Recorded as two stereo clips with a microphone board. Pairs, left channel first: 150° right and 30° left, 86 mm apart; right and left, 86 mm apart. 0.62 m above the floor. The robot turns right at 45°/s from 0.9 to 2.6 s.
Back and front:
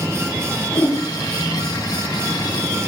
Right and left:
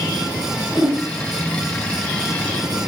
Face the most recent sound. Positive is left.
turn(degrees=-140)